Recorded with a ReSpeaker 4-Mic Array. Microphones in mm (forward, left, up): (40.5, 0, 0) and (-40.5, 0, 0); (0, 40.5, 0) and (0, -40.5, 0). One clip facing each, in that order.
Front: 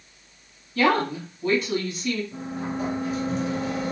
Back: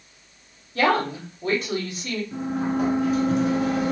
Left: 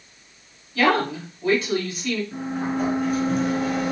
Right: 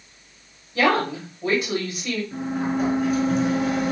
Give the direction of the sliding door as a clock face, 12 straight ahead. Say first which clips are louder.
Back 6 dB, right 1 dB; 6 o'clock.